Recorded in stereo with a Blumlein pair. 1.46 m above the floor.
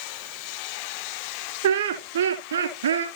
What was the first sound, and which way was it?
Laughter, 55° right.